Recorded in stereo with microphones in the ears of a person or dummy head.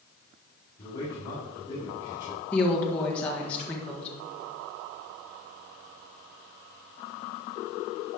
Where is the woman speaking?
10° left (ahead or behind), 1.5 m.